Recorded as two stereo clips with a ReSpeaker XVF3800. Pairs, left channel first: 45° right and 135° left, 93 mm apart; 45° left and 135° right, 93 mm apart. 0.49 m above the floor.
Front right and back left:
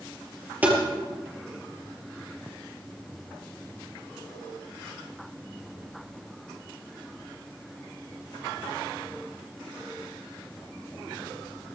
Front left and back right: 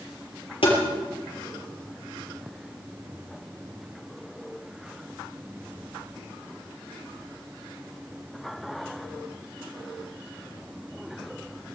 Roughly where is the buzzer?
I don't hear a buzzer.